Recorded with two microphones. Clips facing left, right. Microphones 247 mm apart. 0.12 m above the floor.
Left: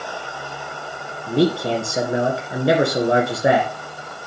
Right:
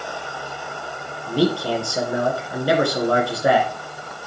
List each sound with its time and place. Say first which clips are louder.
1.3 s a man speaking: left 2 dB; 20° left (ahead or behind), 1.9 m